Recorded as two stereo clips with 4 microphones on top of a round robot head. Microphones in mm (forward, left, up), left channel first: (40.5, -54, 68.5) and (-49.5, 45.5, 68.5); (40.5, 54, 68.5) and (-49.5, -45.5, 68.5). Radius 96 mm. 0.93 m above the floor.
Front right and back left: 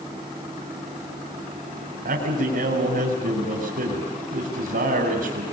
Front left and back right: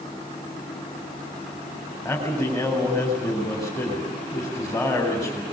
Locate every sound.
2.0 s a man speaking: 115° left, 4 m